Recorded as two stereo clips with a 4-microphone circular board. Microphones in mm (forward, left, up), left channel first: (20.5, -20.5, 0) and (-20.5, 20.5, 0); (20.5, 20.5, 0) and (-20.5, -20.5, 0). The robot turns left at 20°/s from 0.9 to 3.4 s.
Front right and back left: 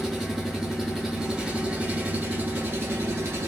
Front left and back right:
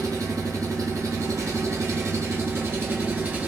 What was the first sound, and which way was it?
An engine running, 140° right.